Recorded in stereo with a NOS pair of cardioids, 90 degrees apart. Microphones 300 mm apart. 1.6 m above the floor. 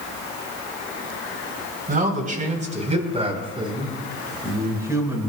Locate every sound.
1.9 s a man speaking: 30° right, 4.5 m; by 5.3 s 10° right, 5.5 m